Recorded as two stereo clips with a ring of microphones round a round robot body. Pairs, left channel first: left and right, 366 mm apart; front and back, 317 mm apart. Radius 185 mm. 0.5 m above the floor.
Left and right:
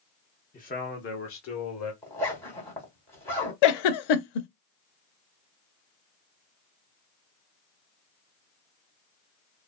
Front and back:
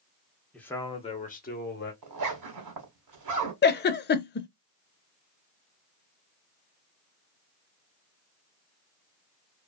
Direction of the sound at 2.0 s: 170° left.